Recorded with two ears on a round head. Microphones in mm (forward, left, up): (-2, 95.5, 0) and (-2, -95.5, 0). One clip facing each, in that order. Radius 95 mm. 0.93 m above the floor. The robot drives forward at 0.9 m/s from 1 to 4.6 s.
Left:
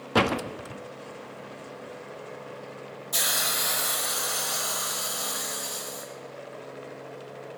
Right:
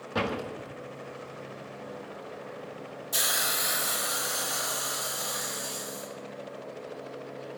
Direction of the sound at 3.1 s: 5° right (ahead or behind).